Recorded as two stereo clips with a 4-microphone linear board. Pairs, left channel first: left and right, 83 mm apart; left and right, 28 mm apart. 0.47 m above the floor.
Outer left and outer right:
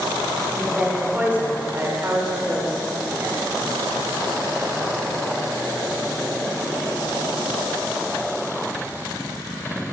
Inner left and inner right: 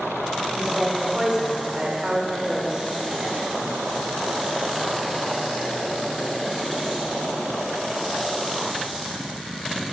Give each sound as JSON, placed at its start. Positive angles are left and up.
{"t": 0.5, "sound": "a woman speaking", "side_deg": -5, "distance_m": 1.7}